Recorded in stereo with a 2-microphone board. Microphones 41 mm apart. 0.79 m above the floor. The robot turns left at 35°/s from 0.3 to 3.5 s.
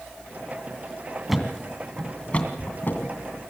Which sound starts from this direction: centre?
A thud, at 1.3 s.